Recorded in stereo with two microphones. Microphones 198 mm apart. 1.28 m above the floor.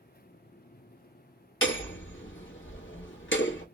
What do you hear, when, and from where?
1.6 s hammering: 75° left (ahead or behind), 1.7 m